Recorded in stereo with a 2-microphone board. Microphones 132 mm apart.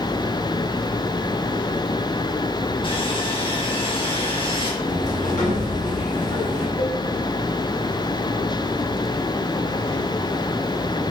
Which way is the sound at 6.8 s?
80° left.